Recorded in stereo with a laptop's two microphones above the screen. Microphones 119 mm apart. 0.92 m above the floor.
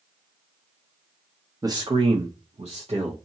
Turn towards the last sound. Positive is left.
turn(degrees=-55)  # may be behind; listen again after turning